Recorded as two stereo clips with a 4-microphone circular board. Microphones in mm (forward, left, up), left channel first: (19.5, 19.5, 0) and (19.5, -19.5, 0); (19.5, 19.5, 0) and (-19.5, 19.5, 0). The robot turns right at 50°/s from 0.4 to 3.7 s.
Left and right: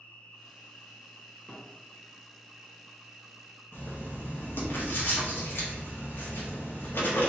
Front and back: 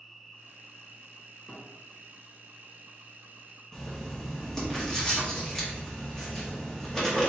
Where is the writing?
70° left, 1.3 m.